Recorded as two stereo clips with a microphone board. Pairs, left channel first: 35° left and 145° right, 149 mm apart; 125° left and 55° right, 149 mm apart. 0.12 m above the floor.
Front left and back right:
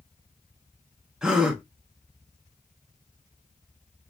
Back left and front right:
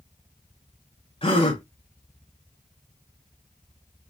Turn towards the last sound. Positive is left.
turn(degrees=130)